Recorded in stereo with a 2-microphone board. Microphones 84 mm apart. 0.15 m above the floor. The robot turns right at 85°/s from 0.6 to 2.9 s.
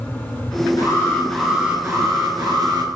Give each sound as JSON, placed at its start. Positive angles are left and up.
{"t": 0.8, "sound": "an alarm", "azimuth_deg": 120, "distance_m": 2.5}